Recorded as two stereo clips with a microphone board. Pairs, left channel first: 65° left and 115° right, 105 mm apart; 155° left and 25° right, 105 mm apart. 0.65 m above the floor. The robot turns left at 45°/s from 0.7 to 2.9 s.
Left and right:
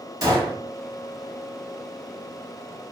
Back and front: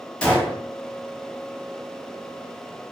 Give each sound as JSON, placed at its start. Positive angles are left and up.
{"t": 0.2, "sound": "a gunshot", "azimuth_deg": -130, "distance_m": 0.8}